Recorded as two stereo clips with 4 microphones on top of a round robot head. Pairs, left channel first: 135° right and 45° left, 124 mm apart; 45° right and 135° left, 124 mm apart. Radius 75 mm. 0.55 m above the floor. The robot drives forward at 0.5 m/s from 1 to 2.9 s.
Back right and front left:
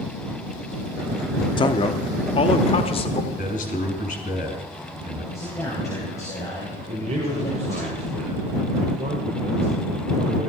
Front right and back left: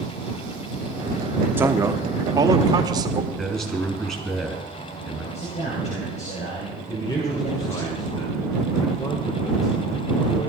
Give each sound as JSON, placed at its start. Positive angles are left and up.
{"t": 1.6, "sound": "a man speaking", "azimuth_deg": -160, "distance_m": 0.8}
{"t": 3.4, "sound": "a man speaking", "azimuth_deg": -130, "distance_m": 4.0}
{"t": 5.3, "sound": "a man speaking", "azimuth_deg": -70, "distance_m": 3.5}
{"t": 6.9, "sound": "a man speaking", "azimuth_deg": 15, "distance_m": 2.0}